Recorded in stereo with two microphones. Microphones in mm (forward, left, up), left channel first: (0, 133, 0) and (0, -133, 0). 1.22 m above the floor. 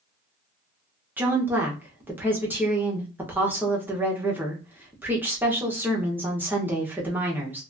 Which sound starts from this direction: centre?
A woman speaking, at 1.2 s.